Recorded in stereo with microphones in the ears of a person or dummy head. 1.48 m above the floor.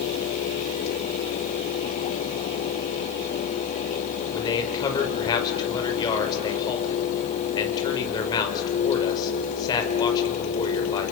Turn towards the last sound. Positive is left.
turn(degrees=20)  # may be behind; listen again after turning